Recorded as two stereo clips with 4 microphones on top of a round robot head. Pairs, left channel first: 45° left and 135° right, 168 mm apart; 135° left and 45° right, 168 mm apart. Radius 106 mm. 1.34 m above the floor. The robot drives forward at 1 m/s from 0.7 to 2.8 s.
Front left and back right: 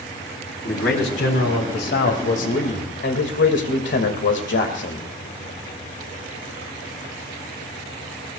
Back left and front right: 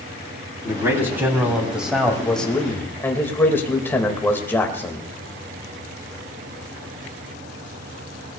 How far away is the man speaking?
About 3.5 m.